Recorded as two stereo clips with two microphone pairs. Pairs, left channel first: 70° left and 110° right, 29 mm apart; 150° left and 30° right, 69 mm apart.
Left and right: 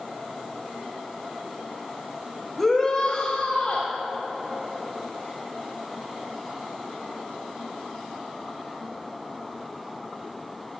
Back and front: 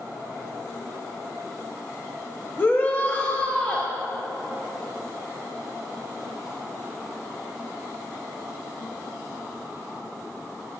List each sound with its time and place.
2.6 s a shout: 145° left, 0.7 m; by 3.9 s 80° left, 1.2 m